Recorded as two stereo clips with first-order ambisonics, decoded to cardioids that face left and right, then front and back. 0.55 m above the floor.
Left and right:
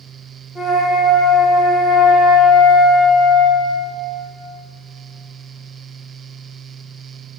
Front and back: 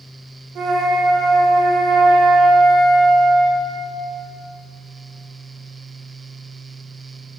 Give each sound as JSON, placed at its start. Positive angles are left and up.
{"t": 0.6, "sound": "a flute", "azimuth_deg": 180, "distance_m": 1.5}